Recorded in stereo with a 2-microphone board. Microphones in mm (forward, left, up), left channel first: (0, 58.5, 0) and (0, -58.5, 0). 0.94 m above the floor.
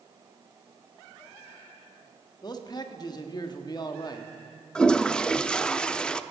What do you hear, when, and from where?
2.4 s a man speaking: 35° left (ahead or behind), 1.3 m
4.8 s a toilet flushing: 5° left (ahead or behind), 0.5 m